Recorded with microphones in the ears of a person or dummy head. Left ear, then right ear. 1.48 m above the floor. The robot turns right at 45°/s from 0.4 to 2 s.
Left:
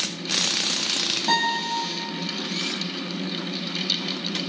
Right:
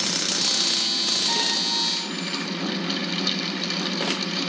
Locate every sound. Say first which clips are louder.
1.3 s a guitar: even; 50° left (ahead or behind), 9.5 m; by 1.7 s 30° left (ahead or behind), 9.5 m